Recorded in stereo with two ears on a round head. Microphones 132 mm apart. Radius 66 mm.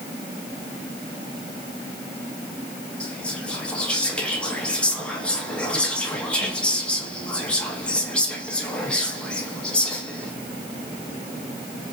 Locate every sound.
3.0 s whispering: 10° left (ahead or behind), 1.1 m